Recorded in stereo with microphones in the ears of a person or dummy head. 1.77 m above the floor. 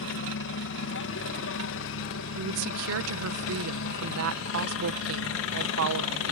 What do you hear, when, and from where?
0.0 s a helicopter: 65° left (ahead or behind)
2.4 s a woman speaking: 70° right (ahead or behind)